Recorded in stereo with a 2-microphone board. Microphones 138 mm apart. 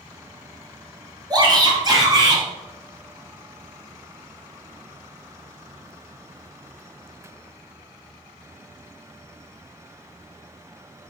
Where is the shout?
30° right (ahead or behind), 2 m.